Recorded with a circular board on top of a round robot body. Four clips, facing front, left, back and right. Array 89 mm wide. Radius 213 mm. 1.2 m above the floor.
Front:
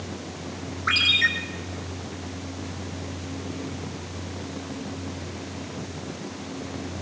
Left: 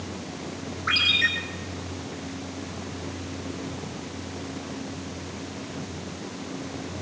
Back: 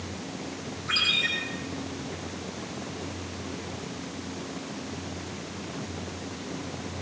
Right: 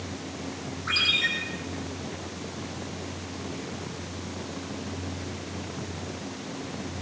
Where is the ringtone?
20° left, 5 m.